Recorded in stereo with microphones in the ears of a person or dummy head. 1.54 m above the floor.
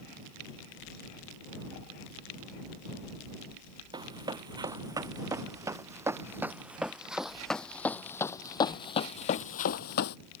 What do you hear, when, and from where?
3.9 s running footsteps: 25° right (ahead or behind); by 10.2 s 50° left (ahead or behind)